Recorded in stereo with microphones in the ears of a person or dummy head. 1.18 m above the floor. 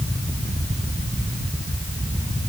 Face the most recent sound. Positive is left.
No sound to turn to.